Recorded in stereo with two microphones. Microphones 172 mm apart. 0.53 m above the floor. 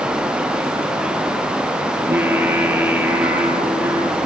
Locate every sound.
2.0 s singing: 10° right (ahead or behind), 5.5 m